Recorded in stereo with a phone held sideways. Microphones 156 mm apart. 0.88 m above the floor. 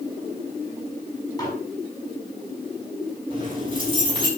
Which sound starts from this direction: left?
Dishes clattering, at 1.4 s.